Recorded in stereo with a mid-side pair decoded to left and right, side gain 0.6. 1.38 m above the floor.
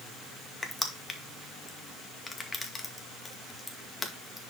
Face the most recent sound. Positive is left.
turn(degrees=15)